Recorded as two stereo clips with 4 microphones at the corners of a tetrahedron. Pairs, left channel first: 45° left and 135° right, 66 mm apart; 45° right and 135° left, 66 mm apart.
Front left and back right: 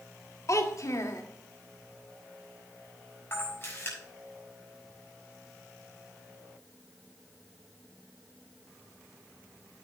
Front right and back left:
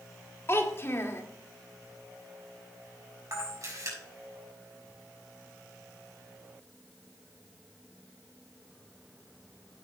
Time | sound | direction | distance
0.5 | a child speaking | 5° left | 1.6 m
3.3 | a camera shutter | 100° left | 5.5 m